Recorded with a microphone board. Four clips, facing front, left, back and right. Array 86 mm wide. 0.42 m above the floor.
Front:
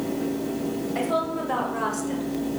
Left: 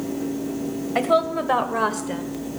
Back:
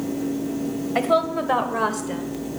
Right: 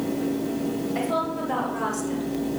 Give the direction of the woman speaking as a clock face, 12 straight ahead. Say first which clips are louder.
Left 10 dB, back 7 dB; 8 o'clock.